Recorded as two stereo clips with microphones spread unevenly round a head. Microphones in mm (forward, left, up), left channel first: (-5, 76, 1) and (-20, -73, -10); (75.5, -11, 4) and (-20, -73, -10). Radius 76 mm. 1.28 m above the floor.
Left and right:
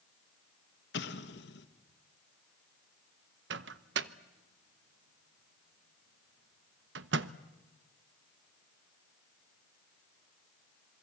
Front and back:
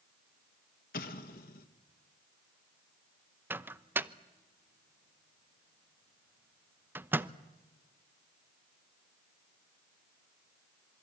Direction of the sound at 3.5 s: 70° right.